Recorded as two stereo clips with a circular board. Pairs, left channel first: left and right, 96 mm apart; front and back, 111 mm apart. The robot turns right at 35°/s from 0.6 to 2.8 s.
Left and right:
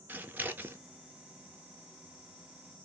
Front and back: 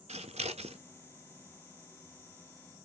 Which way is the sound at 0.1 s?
160° right.